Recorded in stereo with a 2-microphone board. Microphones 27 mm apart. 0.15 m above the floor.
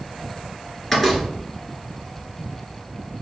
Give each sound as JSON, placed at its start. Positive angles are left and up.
{"t": 0.9, "sound": "a door slam", "side_deg": 10, "distance_m": 1.4}